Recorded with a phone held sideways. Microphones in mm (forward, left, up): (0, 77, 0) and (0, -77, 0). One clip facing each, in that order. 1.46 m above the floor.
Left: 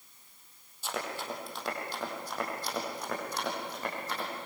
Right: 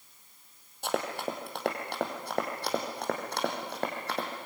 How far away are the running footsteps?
About 3.5 m.